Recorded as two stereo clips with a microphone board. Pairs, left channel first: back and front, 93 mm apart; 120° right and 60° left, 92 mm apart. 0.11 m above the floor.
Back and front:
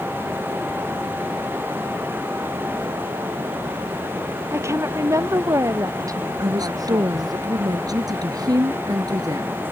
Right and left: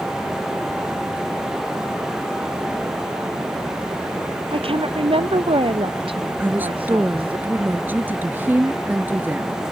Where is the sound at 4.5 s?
60° left; by 7.4 s 45° left.